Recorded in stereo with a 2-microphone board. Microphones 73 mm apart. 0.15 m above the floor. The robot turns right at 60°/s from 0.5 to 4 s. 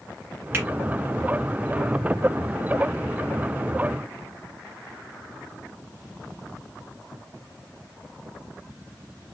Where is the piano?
No piano in this recording.